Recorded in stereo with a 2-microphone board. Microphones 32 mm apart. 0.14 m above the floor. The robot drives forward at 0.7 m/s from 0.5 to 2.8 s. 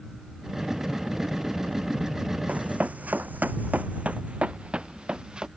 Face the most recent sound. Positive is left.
turn(degrees=-30)  # may be behind; listen again after turning